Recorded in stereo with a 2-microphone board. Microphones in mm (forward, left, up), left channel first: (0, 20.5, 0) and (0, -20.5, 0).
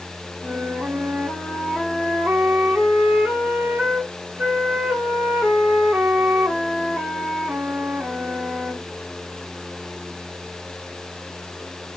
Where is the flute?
60° right (ahead or behind), 1.0 m.